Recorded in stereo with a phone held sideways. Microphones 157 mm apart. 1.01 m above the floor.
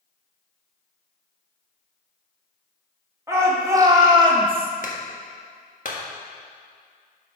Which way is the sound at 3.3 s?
20° right (ahead or behind).